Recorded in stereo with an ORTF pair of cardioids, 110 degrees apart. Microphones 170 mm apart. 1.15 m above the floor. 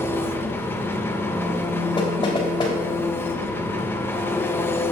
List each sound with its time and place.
0.0 s an engine running: 15° left, 0.9 m
2.0 s knocking: 25° left, 3.5 m